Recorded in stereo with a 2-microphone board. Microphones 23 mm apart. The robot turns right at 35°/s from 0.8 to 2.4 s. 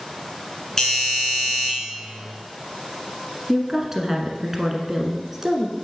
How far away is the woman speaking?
About 1.2 m.